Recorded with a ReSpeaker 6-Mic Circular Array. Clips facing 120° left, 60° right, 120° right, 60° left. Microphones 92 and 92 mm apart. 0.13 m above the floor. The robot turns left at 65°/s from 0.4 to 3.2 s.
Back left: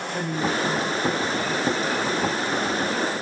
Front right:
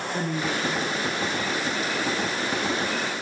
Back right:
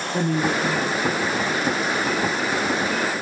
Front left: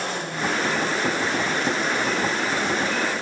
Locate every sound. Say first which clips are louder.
0.1 s a woman speaking: back left 4 dB, back right 8 dB; 145° right, 8 m; by 2.2 s 95° left, 8 m